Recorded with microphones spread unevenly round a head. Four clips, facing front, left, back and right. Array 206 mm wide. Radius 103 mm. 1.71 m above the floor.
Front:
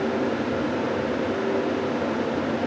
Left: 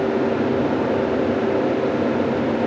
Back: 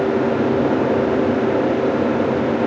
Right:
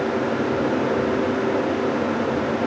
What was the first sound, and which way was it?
Only background noise.